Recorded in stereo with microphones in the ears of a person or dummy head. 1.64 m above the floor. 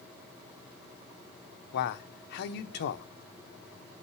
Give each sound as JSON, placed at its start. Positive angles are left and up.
{"t": 1.7, "sound": "a man speaking", "side_deg": 55, "distance_m": 0.9}